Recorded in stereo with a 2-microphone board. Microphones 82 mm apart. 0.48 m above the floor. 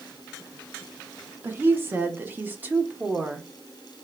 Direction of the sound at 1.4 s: 25° right (ahead or behind).